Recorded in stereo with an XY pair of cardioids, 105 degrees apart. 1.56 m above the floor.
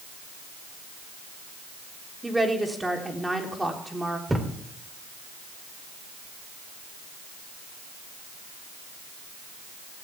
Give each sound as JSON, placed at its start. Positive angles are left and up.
{"t": 2.2, "sound": "a woman speaking", "azimuth_deg": -10, "distance_m": 3.5}
{"t": 4.3, "sound": "a thud", "azimuth_deg": -10, "distance_m": 3.0}